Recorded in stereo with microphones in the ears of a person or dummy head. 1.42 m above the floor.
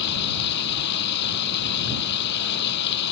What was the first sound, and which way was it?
Running water, 55° left (ahead or behind).